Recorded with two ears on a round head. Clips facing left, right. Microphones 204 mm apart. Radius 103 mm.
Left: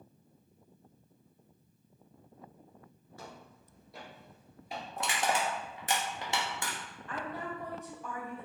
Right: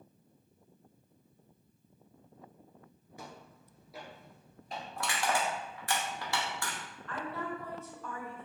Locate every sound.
3.2 s footsteps: 15° right (ahead or behind), 1.4 m; by 4.9 s 10° left (ahead or behind), 1.7 m
5.0 s crushing: 20° left (ahead or behind), 0.8 m
7.1 s a woman speaking: 15° left (ahead or behind), 1.1 m